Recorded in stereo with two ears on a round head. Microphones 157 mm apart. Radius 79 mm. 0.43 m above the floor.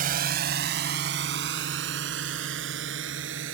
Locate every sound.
0.0 s a drone: 55° right (ahead or behind); by 3.5 s 80° right